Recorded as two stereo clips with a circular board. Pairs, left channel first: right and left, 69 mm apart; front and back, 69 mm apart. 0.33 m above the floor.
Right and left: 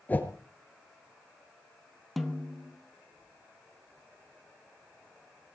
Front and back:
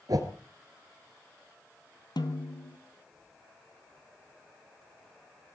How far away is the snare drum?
About 1.6 m.